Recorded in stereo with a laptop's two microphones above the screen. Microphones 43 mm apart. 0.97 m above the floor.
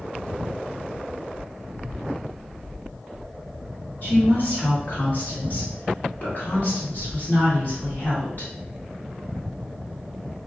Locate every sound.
4.0 s a woman speaking: 50° left (ahead or behind), 1.5 m